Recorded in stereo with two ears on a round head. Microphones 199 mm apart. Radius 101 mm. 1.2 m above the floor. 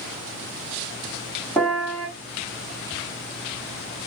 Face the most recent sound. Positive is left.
turn(degrees=5)  # may be behind; listen again after turning